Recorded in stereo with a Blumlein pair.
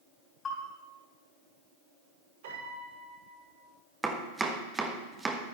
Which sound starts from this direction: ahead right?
A piano, at 2.4 s.